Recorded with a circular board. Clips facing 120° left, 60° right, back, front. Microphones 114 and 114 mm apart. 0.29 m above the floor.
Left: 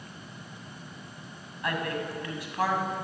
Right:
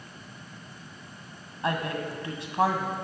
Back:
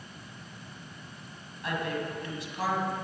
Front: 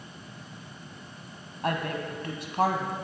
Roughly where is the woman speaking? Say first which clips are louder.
Right 2 dB, front 2 dB; ahead.